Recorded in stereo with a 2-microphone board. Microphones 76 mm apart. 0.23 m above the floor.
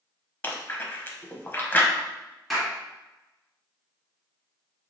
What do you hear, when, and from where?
0.4 s chewing: 25° left (ahead or behind), 0.6 m
2.5 s a clap: centre (ahead or behind), 1.7 m